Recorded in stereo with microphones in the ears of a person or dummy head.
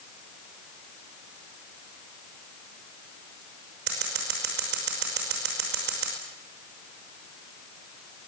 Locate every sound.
3.9 s scissors: 65° right (ahead or behind), 5.5 m